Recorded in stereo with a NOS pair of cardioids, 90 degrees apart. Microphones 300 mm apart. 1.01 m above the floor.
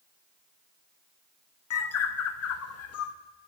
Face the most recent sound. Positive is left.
turn(degrees=55)